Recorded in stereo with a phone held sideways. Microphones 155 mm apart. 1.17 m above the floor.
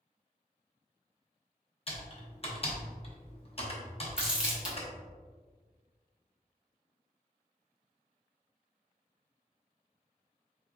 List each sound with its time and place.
1.9 s typing on a keyboard: 40° left (ahead or behind), 0.7 m
4.2 s crumpling: 5° right (ahead or behind), 0.9 m